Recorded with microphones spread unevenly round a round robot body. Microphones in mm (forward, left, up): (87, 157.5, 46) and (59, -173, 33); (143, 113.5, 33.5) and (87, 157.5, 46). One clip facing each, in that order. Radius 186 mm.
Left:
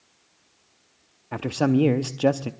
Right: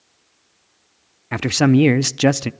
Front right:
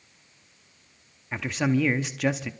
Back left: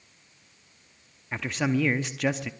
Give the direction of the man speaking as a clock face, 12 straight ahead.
4 o'clock.